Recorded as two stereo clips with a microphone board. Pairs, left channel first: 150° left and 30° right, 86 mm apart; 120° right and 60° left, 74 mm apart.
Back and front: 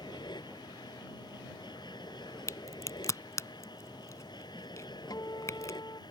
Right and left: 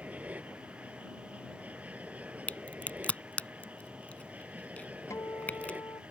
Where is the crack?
Straight behind.